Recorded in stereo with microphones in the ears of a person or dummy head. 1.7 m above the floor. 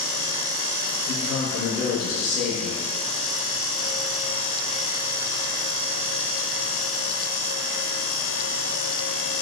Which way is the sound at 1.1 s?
70° left (ahead or behind).